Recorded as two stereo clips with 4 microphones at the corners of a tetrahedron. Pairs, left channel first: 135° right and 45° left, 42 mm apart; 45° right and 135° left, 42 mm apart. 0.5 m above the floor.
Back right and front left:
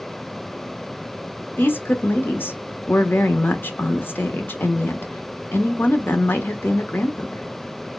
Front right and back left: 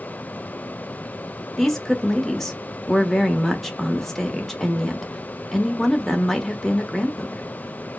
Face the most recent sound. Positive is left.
turn(degrees=-125)